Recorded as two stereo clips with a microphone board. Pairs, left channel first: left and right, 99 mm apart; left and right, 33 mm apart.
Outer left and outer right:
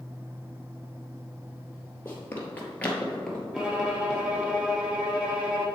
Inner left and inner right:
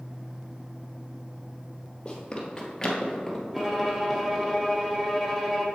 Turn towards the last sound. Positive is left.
turn(degrees=-10)  # may be behind; listen again after turning